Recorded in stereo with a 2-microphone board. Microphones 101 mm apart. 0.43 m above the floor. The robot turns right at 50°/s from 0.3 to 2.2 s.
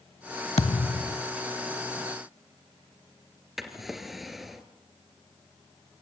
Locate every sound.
0.6 s a thud: 75° left, 1.0 m; by 1.2 s 110° left, 1.0 m
3.6 s a drawer: centre (ahead or behind), 2.0 m